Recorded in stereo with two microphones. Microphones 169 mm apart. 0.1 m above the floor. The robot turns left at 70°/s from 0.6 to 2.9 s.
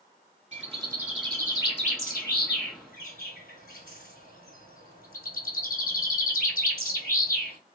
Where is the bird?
140° right, 1.7 m; by 7.6 s 60° left, 1.7 m.